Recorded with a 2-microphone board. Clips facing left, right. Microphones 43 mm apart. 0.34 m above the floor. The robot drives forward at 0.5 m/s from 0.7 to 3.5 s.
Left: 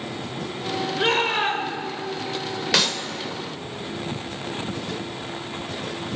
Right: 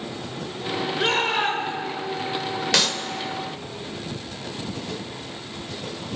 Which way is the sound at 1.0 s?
5° left (ahead or behind).